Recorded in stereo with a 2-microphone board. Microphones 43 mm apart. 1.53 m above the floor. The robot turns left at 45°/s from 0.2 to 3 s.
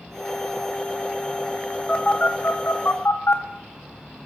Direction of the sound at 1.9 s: 30° left (ahead or behind).